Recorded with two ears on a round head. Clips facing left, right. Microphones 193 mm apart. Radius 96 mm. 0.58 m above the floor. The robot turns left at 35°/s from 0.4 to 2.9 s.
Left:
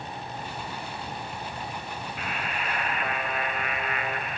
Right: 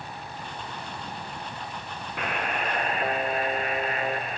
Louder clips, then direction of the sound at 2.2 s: Right 7 dB; 50° right (ahead or behind).